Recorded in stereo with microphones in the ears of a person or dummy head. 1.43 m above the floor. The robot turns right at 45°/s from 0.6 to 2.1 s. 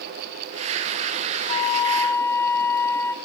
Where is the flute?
40° left (ahead or behind), 1.3 m; by 3.1 s 15° left (ahead or behind), 1.3 m.